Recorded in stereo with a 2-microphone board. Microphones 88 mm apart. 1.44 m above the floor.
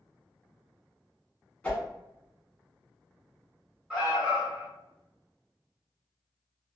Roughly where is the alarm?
Centre.